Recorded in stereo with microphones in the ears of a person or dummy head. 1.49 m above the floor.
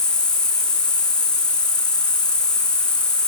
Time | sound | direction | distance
0.0 | an insect | 5° left (ahead or behind) | 1.1 m